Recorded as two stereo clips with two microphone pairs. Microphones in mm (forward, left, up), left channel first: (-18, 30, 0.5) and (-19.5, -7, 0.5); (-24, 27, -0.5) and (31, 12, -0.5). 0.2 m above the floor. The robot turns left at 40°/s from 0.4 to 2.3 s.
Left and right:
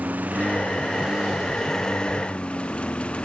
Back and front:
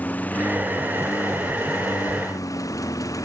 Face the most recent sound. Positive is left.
turn(degrees=150)